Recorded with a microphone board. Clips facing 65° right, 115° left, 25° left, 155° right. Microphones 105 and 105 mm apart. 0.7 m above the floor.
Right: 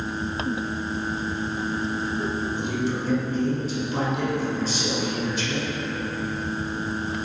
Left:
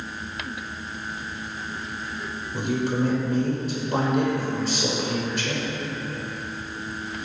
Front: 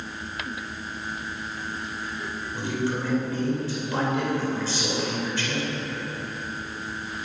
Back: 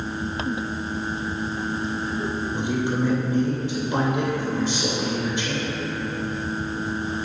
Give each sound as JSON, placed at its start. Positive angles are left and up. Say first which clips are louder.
{"t": 2.5, "sound": "a man speaking", "louder": "left 1 dB, back 1 dB", "azimuth_deg": 130, "distance_m": 3.0}